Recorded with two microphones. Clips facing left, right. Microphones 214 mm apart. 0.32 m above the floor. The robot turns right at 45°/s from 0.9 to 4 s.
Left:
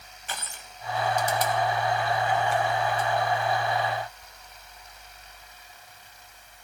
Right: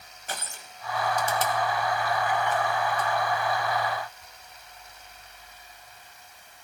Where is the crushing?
40° right (ahead or behind), 1.2 m; by 3.1 s 30° left (ahead or behind), 1.2 m.